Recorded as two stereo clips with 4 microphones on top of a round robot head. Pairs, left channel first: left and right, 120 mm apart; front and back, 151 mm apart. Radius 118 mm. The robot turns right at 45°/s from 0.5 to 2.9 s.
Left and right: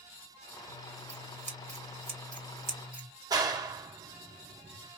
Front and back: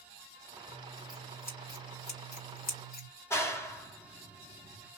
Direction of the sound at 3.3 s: 60° right.